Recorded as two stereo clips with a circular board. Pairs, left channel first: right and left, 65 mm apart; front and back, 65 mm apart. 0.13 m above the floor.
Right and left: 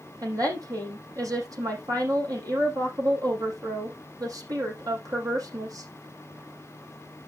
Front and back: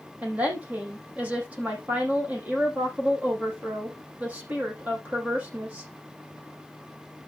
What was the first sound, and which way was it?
A woman speaking, 115° left.